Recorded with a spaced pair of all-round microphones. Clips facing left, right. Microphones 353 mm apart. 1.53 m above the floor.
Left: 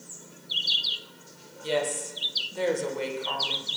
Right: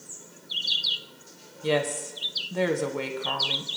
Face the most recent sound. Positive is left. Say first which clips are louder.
# right 3 dB
turn(degrees=-70)  # may be behind; listen again after turning